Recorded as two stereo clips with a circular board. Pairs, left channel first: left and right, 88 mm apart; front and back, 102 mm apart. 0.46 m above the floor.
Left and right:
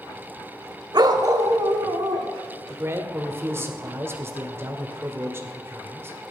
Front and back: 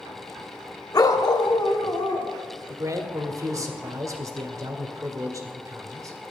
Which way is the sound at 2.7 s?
140° right.